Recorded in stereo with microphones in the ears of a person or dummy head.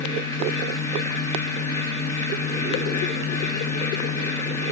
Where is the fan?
20° left (ahead or behind), 2.5 m.